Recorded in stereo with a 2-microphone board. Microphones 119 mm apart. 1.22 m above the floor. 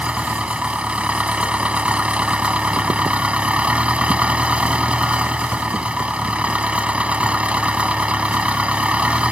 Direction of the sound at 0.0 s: 10° right (ahead or behind).